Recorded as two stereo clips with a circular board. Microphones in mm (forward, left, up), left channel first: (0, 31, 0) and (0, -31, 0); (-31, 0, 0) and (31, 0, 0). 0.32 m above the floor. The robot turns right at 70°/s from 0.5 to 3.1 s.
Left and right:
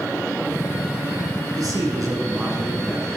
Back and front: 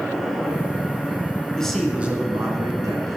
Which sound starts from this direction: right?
A man speaking, at 1.6 s.